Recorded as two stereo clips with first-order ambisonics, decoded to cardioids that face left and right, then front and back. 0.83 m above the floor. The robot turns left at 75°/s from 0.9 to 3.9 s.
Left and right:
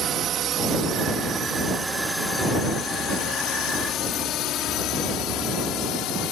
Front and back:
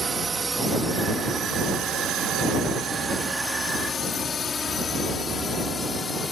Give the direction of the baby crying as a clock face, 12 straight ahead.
I don't hear a baby crying.